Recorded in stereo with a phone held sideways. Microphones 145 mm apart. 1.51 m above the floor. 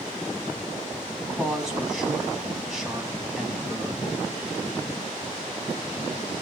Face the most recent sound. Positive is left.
turn(degrees=0)  # may be behind; listen again after turning